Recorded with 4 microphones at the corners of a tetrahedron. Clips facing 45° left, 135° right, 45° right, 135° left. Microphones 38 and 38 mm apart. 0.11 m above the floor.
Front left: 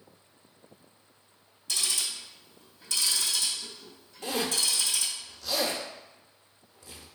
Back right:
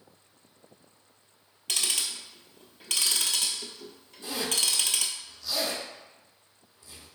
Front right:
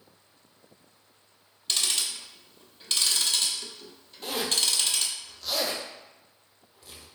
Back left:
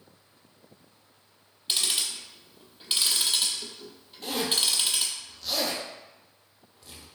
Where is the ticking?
150° right, 0.8 m.